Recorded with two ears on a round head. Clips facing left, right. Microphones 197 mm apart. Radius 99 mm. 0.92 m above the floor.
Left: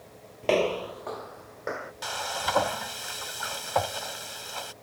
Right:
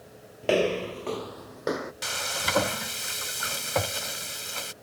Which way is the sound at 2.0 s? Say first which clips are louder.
Left 1 dB; 30° right (ahead or behind).